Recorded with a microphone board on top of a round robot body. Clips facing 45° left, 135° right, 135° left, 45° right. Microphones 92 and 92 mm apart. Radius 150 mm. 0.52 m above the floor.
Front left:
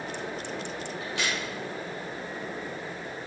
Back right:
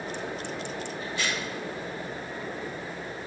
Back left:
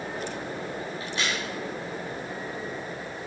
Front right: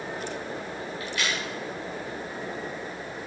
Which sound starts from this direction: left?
A crack, at 1.0 s.